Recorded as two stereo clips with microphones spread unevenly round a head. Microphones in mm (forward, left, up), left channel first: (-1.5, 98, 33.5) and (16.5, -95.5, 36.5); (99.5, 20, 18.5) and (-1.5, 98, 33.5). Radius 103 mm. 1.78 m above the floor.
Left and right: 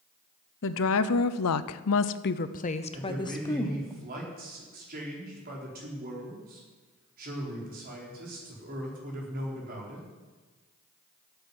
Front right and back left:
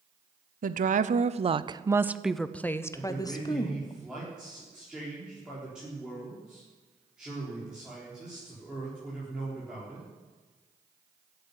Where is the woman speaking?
125° left, 0.9 m; by 3.9 s 15° left, 1.4 m.